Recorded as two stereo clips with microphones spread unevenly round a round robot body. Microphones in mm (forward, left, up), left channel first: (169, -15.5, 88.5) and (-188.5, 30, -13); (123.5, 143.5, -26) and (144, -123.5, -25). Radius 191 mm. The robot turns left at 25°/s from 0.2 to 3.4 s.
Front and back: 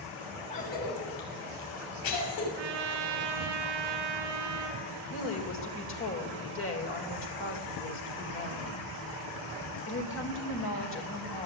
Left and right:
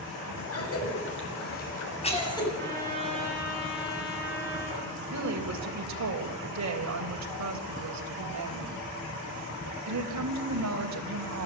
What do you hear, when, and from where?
0.5 s a cough: 65° left, 7.5 m; by 2.5 s 20° left, 7.5 m
2.6 s a trumpet: straight behind, 3.5 m; by 4.8 s 160° left, 3.5 m
5.1 s a woman speaking: 65° right, 3.5 m